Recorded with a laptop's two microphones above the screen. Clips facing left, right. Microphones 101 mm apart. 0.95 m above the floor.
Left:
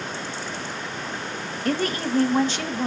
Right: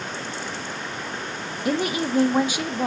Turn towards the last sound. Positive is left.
turn(degrees=-10)  # may be behind; listen again after turning